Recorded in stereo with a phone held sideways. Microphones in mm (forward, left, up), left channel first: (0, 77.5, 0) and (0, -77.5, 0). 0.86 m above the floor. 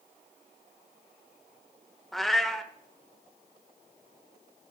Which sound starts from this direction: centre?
A cat meowing, at 2.1 s.